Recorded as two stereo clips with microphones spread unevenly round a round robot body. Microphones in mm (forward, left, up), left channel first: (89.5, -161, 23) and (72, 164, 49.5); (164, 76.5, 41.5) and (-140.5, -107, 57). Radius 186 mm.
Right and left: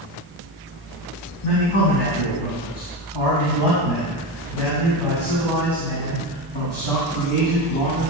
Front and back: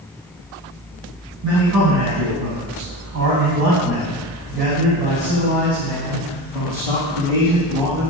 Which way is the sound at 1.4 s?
105° right.